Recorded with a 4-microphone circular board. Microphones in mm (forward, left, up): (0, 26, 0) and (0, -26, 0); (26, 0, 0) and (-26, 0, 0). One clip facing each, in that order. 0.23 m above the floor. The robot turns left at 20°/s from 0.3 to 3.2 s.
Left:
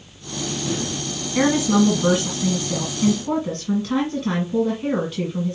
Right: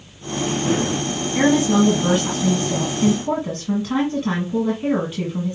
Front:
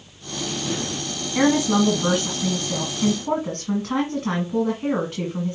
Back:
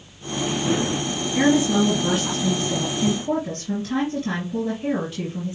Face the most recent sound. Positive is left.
turn(degrees=-25)